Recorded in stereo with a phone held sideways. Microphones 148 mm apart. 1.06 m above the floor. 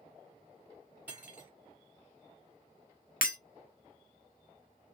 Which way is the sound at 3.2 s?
75° left (ahead or behind).